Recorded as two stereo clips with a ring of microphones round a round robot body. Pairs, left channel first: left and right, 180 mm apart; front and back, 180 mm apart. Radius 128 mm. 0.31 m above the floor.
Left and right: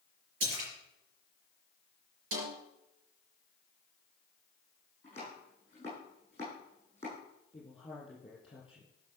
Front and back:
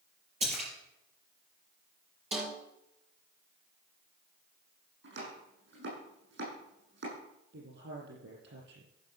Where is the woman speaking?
165° left, 5.5 m.